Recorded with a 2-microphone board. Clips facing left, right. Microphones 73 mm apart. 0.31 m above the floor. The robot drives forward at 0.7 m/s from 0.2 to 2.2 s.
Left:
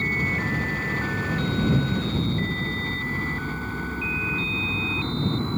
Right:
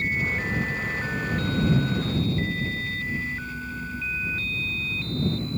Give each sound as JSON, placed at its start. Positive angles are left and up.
{"t": 0.0, "sound": "a helicopter", "side_deg": 50}